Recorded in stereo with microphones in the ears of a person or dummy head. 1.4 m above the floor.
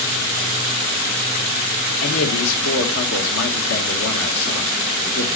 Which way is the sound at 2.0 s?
75° left (ahead or behind).